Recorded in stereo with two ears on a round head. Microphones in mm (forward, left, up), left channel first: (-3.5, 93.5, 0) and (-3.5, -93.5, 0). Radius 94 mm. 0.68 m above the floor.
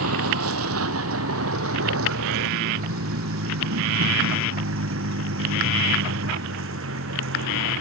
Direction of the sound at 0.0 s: 80° right.